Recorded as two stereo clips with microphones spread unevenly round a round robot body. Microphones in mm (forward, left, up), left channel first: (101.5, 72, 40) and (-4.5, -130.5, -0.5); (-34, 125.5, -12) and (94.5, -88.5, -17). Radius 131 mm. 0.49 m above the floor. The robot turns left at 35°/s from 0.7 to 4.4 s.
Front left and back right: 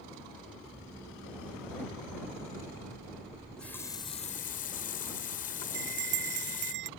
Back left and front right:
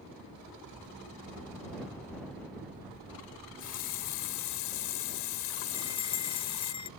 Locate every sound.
3.3 s a running tap: 165° left; by 6.7 s 125° left
5.7 s a bell: 165° right